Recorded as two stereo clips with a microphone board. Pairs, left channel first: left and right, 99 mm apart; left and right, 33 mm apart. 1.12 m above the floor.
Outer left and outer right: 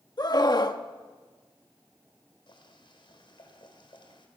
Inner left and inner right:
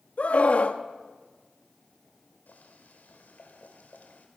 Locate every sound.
0.2 s a scream: 45° left (ahead or behind), 1.4 m
2.5 s boiling: 60° left (ahead or behind), 3.5 m